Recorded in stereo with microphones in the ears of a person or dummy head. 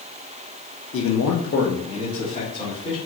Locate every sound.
0.9 s a man speaking: 60° left (ahead or behind), 0.7 m; by 3.0 s 30° left (ahead or behind), 3 m